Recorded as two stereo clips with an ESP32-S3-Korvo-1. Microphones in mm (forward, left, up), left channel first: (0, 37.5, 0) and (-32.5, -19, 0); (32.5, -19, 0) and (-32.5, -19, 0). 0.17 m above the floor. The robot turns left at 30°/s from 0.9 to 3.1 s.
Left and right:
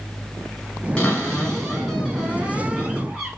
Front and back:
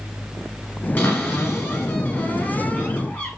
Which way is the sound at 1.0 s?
15° left.